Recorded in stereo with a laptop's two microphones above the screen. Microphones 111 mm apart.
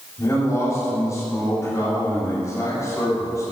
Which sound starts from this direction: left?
A man speaking, at 0.2 s.